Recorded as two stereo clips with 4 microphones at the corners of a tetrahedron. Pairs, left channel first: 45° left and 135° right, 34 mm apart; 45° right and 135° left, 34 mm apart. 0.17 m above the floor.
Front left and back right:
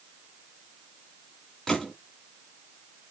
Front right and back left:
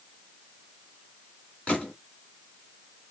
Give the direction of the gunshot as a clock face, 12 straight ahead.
1 o'clock.